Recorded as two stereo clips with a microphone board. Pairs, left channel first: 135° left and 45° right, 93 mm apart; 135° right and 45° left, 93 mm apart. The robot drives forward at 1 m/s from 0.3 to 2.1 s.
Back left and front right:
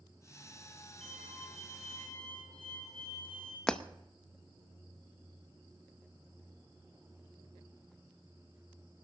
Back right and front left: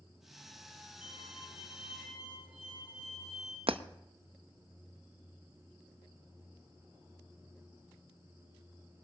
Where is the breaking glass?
55° left, 0.6 m.